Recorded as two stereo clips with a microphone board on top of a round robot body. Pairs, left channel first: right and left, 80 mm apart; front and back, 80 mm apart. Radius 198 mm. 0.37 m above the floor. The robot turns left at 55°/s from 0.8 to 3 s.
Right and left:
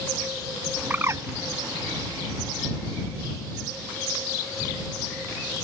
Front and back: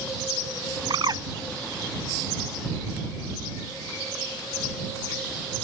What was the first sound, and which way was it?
A bird, 155° left.